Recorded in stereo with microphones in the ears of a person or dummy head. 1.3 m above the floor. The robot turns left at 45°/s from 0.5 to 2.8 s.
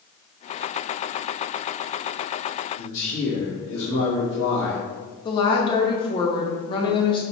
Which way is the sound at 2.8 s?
80° left.